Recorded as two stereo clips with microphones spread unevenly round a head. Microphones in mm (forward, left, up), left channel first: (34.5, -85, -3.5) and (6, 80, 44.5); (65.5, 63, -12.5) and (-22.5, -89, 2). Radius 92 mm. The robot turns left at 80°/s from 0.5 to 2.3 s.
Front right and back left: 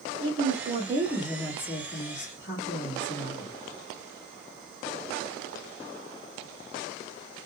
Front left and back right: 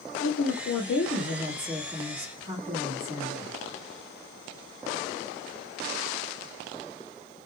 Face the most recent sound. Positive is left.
turn(degrees=-75)